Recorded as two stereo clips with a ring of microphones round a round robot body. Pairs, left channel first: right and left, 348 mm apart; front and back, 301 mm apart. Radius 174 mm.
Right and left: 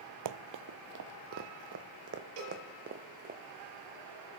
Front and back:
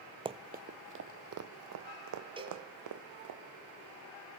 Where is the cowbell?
105° left, 7.5 m.